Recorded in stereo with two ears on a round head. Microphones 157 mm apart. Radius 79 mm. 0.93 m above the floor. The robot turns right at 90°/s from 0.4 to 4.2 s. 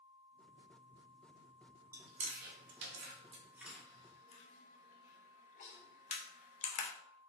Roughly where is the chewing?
Centre.